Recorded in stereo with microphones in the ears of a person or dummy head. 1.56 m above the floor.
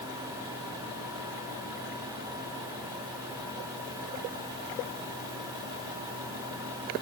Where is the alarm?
I don't hear an alarm.